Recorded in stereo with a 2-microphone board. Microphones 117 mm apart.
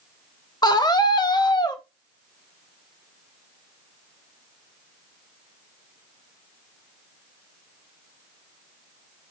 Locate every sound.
0.6 s a scream: 35° left (ahead or behind), 1.1 m